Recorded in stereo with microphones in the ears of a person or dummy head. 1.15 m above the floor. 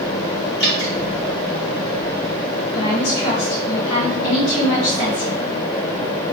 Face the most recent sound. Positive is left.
turn(degrees=75)  # may be behind; listen again after turning